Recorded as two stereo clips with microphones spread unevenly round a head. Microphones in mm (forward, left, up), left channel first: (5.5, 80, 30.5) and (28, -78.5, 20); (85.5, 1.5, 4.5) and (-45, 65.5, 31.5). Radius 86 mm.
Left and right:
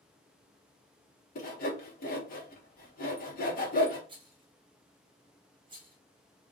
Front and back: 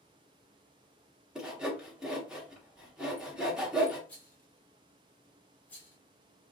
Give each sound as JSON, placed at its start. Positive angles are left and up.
{"t": 1.4, "sound": "sawing", "azimuth_deg": 65, "distance_m": 1.0}
{"t": 4.1, "sound": "a rattle", "azimuth_deg": -80, "distance_m": 0.9}